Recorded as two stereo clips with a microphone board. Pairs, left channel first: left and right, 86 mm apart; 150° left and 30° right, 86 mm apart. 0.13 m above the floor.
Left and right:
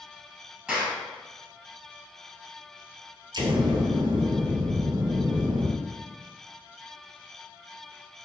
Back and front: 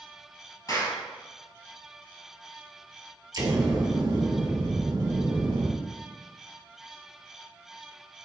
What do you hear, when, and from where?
0.7 s a clap: 170° right, 1.7 m
3.3 s an explosion: 65° right, 0.8 m